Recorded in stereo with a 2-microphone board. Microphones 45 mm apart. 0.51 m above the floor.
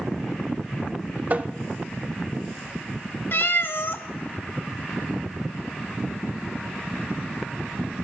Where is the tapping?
40° right (ahead or behind), 0.6 m.